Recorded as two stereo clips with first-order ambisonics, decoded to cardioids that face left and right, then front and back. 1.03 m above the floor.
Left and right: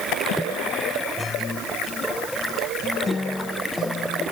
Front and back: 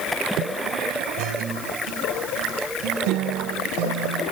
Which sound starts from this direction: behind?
A guitar, at 1.2 s.